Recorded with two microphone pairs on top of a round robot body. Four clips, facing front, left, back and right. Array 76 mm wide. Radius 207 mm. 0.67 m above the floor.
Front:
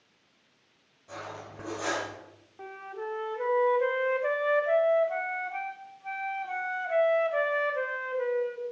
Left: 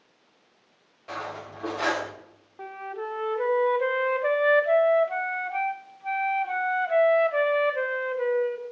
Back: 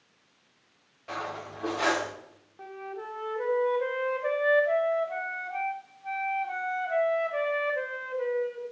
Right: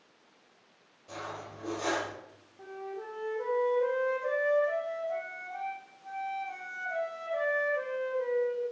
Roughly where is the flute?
Left.